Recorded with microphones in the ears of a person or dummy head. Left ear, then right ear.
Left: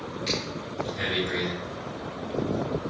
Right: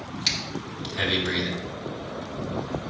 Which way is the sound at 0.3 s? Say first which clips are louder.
Right 4 dB; 50° right (ahead or behind).